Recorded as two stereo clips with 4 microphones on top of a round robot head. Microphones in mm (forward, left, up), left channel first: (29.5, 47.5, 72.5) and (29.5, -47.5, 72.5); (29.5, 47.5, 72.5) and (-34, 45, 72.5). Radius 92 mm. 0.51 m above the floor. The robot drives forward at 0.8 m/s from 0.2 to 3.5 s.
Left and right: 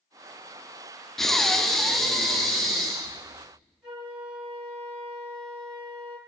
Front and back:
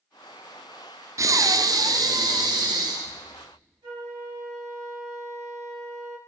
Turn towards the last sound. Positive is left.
turn(degrees=-170)